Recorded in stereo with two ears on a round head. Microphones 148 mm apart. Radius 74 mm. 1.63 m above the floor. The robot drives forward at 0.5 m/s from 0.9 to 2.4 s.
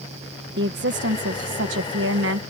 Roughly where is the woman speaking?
Right.